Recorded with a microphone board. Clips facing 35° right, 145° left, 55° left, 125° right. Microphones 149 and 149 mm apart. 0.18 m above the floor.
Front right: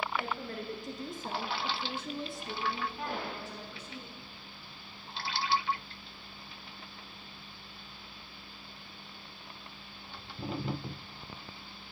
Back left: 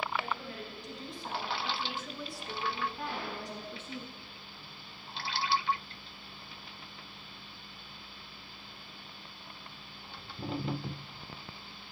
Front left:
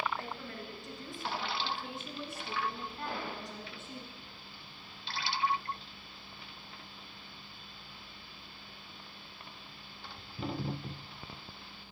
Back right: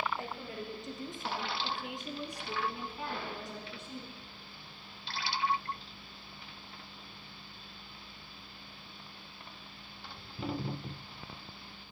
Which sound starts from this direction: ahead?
A gunshot, at 3.0 s.